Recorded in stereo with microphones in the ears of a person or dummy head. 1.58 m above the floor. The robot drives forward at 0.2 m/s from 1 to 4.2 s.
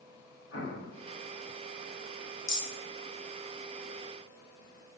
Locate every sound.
0.5 s an explosion: 80° left, 1.2 m
2.5 s a rattle: 20° left (ahead or behind), 0.6 m; by 2.7 s 25° left (ahead or behind), 0.6 m